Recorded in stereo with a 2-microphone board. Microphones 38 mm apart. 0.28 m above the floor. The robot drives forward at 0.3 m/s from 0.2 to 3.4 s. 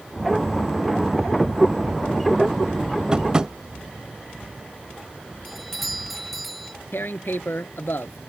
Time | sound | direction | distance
3.1 | tapping | 20° right (ahead or behind) | ?
5.5 | a doorbell | centre (ahead or behind) | ?
6.9 | tearing paper | 65° left (ahead or behind) | ?